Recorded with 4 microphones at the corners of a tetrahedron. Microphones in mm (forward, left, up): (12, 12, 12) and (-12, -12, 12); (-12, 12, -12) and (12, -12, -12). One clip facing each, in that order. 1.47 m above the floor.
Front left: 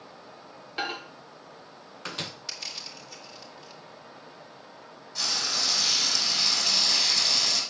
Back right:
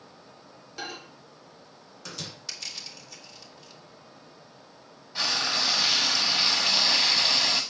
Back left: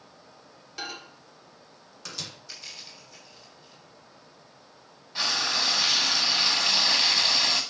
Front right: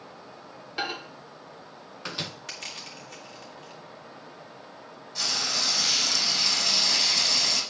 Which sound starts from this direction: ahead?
A microwave, at 0.8 s.